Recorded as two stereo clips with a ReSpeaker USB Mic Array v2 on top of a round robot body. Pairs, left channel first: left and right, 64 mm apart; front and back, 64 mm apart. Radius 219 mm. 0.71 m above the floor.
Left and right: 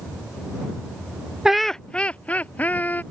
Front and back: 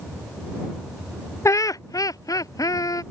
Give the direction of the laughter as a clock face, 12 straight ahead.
12 o'clock.